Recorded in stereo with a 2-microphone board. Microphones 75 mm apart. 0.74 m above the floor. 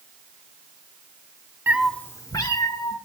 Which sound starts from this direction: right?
A cat meowing, at 1.7 s.